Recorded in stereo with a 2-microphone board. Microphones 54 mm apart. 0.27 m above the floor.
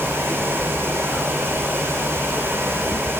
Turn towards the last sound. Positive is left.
No sound to turn to.